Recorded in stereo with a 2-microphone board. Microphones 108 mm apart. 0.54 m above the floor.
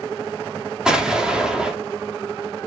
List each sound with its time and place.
0.8 s an explosion: 5° right (ahead or behind), 0.7 m